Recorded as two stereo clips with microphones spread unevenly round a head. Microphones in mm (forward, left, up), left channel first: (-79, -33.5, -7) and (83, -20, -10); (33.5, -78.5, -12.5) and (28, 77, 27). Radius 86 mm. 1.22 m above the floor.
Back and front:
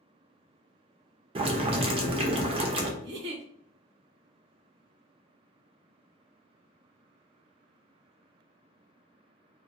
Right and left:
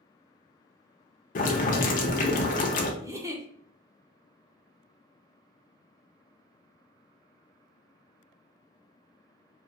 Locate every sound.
1.4 s boiling: 45° right, 0.6 m
3.0 s a giggle: 15° left, 0.6 m